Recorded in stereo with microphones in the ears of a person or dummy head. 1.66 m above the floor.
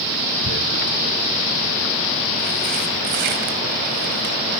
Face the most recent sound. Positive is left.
turn(degrees=-50)  # may be behind; listen again after turning